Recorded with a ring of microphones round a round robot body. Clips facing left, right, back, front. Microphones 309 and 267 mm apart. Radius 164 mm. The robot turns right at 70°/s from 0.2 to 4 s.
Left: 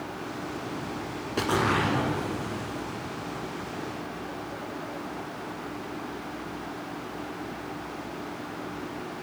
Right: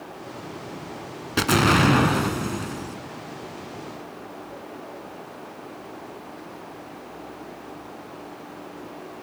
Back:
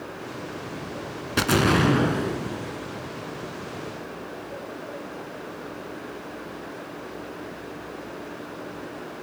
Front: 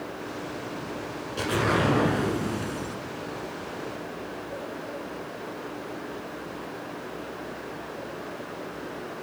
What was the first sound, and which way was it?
An explosion, 145° right.